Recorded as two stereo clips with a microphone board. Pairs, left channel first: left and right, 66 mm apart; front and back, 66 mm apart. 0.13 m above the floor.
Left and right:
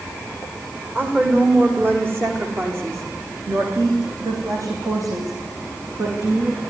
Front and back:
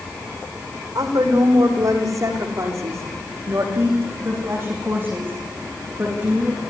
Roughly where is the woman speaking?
Behind right.